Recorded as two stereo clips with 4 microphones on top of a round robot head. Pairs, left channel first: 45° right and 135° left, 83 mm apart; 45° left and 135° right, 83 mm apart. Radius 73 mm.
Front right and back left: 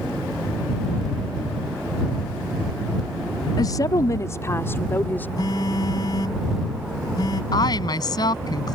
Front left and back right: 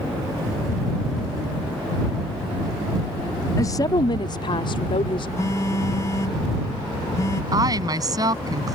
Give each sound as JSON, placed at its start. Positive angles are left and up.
{"t": 3.6, "sound": "a woman speaking", "azimuth_deg": -5}
{"t": 5.4, "sound": "a phone buzzing", "azimuth_deg": -5}
{"t": 7.5, "sound": "a woman speaking", "azimuth_deg": -90}